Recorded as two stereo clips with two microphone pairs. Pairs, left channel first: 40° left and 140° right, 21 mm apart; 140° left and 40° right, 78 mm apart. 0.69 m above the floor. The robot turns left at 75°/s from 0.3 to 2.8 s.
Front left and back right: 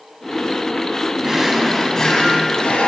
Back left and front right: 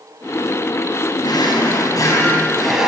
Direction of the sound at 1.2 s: 165° left.